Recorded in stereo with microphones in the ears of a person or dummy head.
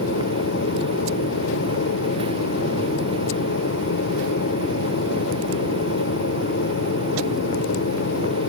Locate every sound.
0.0 s an aircraft: 65° left (ahead or behind)